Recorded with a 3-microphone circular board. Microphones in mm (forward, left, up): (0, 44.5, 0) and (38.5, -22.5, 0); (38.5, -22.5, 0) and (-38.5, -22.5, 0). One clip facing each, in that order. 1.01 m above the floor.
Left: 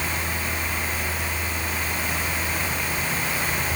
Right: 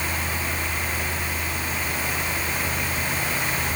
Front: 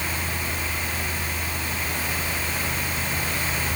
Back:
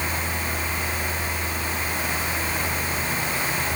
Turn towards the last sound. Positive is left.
No sound to turn to.